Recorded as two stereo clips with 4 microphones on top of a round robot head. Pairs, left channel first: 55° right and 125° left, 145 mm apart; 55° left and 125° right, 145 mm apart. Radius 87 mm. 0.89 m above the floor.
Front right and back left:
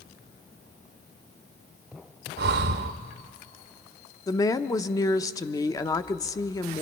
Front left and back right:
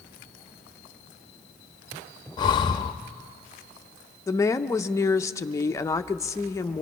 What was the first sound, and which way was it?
Breathing, 115° left.